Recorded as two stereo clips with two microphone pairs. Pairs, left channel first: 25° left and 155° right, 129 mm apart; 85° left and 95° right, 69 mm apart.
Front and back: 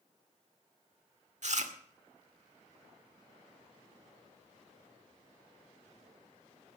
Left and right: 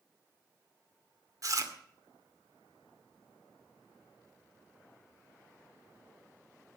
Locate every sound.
1.4 s chewing: 130° right, 1.9 m